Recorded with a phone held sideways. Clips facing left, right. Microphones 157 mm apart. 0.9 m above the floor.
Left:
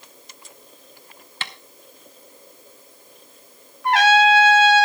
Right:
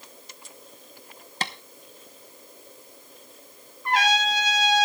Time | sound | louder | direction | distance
1.4 | tapping | right 4 dB | 40° right (ahead or behind) | 0.9 m
3.8 | a trumpet | left 9 dB | 75° left (ahead or behind) | 1.7 m